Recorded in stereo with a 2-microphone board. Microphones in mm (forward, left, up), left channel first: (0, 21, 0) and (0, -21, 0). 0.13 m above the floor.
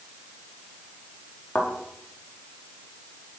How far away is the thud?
About 4.5 m.